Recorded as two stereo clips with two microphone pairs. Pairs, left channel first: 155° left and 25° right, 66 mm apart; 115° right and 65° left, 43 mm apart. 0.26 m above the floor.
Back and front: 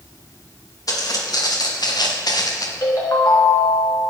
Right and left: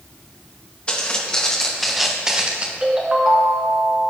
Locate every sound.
0.9 s footsteps: straight behind, 3.5 m; by 2.7 s 120° left, 2 m
2.8 s a ringtone: 135° left, 2.5 m